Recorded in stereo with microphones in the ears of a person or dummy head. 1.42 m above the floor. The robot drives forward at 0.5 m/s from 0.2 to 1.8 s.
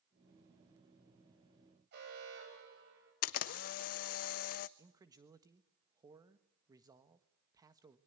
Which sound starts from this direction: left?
A camera shutter, at 3.2 s.